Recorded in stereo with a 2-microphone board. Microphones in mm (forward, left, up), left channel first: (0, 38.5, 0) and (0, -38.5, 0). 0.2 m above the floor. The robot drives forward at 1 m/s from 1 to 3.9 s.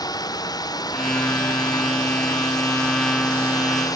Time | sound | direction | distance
0.0 | a drone | 55° left (ahead or behind) | ?